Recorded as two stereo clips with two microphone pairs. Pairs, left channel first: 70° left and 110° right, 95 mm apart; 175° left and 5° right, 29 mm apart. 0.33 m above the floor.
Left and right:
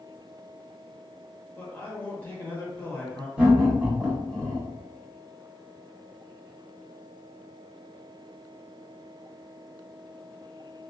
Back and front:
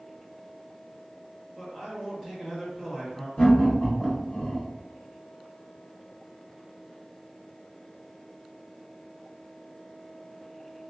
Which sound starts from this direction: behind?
Laughter, at 3.4 s.